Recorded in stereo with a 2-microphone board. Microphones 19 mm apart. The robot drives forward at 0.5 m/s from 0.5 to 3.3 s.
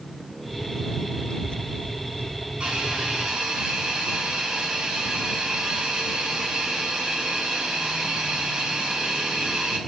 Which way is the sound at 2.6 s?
60° right (ahead or behind).